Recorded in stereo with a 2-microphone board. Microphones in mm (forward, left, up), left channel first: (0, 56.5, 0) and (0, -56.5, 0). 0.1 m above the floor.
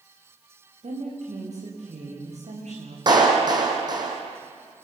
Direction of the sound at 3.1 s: 40° right (ahead or behind).